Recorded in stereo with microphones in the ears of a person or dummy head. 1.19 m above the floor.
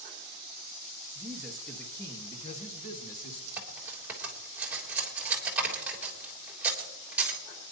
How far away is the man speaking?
About 1.4 m.